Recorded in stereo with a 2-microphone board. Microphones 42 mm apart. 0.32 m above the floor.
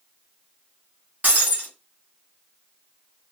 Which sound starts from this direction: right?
Breaking glass, at 1.2 s.